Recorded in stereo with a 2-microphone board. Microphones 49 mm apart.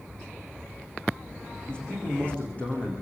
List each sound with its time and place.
1.7 s a man speaking: 20° left (ahead or behind), 9.5 m; by 2.9 s 25° left (ahead or behind), 9 m